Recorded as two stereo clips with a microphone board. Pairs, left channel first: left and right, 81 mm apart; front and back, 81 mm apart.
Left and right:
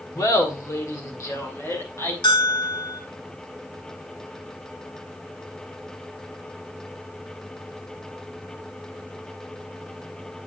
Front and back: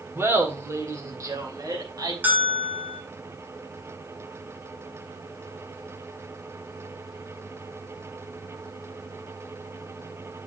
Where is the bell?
110° left, 3 m.